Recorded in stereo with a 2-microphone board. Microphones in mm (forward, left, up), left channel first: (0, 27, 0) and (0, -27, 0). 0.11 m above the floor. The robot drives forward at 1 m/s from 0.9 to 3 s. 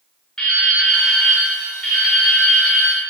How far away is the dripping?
About 6.5 m.